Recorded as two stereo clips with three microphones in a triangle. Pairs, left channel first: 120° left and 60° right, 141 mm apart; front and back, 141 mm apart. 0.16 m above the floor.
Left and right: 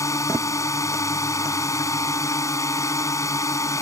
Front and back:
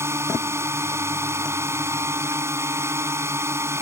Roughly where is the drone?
Behind left.